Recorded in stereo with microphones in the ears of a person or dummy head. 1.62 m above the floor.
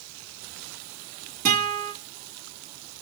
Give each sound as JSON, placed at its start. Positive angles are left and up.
{"t": 1.4, "sound": "a guitar", "side_deg": -40, "distance_m": 1.7}